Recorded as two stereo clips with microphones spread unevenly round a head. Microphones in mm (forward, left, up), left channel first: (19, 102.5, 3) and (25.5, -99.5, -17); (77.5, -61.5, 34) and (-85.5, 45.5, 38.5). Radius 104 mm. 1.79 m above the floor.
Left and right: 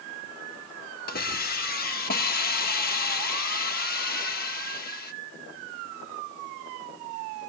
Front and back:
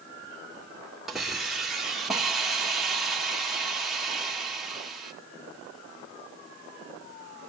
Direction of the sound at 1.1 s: 60° left.